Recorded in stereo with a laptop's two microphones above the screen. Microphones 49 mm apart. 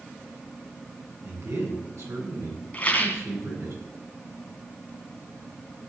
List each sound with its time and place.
1.2 s a man speaking: 80° right, 9 m
2.7 s a rattle: 25° left (ahead or behind), 2.5 m